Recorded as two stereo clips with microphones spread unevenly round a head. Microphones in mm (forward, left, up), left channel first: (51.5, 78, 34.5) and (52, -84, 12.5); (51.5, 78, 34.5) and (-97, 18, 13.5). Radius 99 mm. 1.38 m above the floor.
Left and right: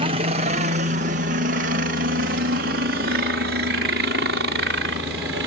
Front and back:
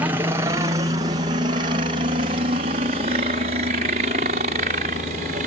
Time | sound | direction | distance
0.0 | a helicopter | 95° right | ?